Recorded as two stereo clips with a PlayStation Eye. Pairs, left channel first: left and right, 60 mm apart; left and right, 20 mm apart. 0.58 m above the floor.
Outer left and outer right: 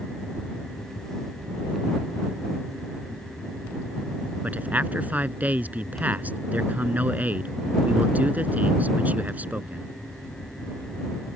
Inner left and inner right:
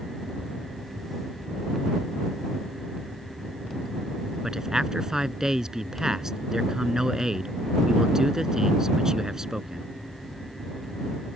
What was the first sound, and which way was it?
A man speaking, 30° right (ahead or behind).